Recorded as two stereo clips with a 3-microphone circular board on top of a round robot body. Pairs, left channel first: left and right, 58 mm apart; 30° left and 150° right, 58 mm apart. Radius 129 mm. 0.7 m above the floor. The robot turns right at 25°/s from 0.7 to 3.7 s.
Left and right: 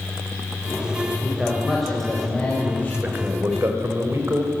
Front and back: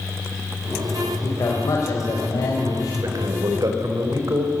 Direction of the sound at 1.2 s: 15° right.